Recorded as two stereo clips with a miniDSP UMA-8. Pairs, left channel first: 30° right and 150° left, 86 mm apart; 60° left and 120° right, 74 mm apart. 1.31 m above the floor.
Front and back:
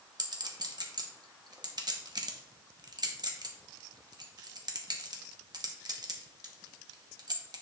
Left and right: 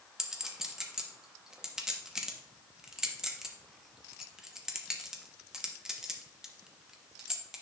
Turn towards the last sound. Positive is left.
turn(degrees=160)